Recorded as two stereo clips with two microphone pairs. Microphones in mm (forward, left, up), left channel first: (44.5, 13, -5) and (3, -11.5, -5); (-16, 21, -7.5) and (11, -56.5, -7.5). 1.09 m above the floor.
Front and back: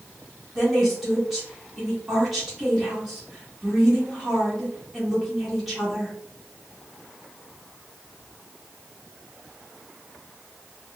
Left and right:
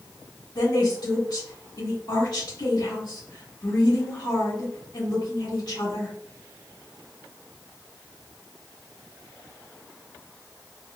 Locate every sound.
0.6 s a woman speaking: 125° left, 1.5 m